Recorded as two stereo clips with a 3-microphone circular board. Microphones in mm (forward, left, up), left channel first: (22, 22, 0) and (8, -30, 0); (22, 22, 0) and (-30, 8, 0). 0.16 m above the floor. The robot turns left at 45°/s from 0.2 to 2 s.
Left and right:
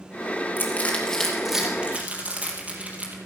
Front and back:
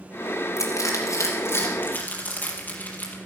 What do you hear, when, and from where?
0.6 s crushing: 25° left, 4 m; by 3.2 s 40° right, 4 m